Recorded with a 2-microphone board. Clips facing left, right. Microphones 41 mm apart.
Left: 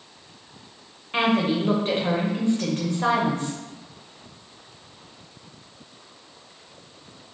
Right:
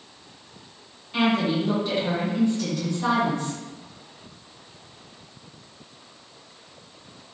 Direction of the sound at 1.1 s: 45° left (ahead or behind).